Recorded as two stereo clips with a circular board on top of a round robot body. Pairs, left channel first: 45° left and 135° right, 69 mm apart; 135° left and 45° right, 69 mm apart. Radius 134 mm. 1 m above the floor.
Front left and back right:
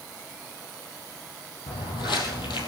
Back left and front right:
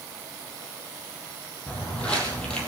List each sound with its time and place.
1.7 s footsteps: 60° left, 2.5 m